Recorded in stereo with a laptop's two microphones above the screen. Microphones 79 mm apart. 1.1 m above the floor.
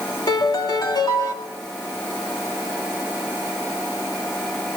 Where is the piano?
60° left (ahead or behind), 2.5 m.